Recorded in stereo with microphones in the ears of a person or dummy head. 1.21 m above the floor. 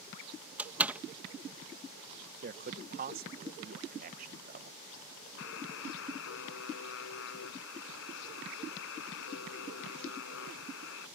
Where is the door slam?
5° right (ahead or behind).